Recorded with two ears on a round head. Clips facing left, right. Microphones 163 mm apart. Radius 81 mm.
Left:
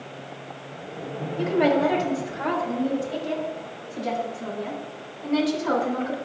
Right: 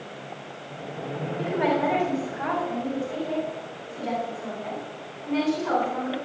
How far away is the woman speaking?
About 4.5 m.